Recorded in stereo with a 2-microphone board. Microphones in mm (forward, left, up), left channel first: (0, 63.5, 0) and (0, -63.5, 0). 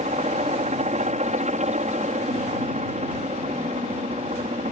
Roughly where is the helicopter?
Right.